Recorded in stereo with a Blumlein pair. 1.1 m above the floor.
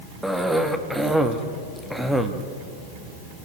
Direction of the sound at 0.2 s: 5° right.